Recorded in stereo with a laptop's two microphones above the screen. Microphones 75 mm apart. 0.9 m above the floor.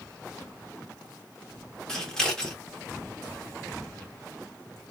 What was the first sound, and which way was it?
Scissors, 10° left (ahead or behind).